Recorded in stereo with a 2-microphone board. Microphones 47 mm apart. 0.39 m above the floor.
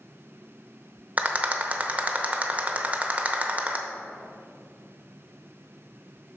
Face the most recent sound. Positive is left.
turn(degrees=-30)  # may be behind; listen again after turning